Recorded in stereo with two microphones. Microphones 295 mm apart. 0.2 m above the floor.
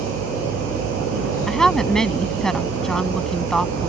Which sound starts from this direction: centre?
A woman speaking, at 1.5 s.